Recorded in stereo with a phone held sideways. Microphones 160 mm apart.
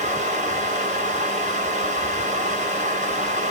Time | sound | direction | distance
0.0 | a fan | 45° right (ahead or behind) | 1.0 m